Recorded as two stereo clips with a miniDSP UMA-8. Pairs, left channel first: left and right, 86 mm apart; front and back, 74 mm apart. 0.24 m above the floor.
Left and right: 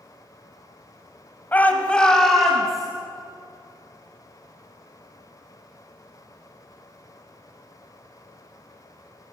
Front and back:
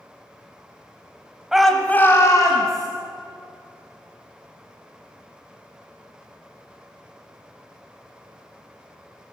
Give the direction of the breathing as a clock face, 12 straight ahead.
No breathing in this recording.